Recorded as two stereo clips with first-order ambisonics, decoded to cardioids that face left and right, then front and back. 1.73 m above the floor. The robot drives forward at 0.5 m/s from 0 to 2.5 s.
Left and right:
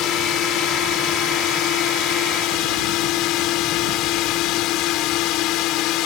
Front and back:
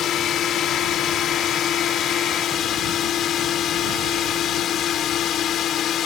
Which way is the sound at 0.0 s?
50° left.